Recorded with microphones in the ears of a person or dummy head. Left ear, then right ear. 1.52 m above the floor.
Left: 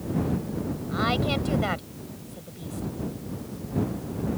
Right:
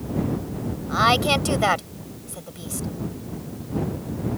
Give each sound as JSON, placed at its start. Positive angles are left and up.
{"t": 0.9, "sound": "a woman speaking", "side_deg": -40}